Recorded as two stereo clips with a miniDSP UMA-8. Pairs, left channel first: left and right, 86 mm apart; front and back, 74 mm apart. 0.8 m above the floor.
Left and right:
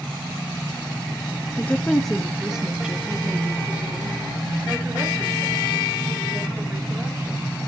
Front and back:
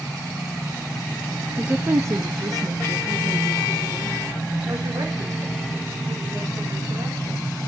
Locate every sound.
1.6 s a woman speaking: 120° left, 0.6 m; by 7.5 s 160° right, 4 m